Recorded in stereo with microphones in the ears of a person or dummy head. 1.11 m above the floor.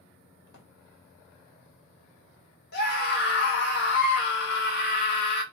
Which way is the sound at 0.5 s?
65° left (ahead or behind).